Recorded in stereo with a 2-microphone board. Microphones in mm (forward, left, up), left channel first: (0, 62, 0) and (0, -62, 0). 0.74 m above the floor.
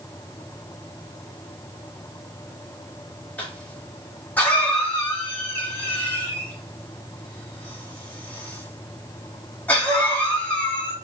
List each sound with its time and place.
3.4 s a cough: 15° left (ahead or behind), 1.4 m